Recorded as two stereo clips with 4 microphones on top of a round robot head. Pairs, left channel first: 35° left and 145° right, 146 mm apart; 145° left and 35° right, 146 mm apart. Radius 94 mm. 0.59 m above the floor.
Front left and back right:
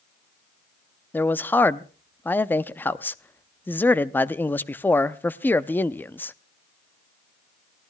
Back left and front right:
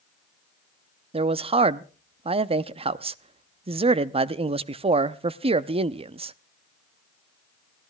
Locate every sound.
1.1 s a man speaking: 30° right, 0.6 m